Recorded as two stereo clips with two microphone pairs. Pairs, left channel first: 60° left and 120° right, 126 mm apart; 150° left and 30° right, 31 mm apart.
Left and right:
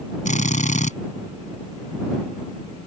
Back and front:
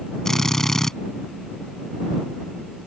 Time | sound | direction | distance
0.2 | a drill | 75° left | ?